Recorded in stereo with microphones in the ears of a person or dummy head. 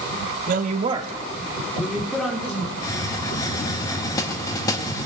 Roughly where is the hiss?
Left.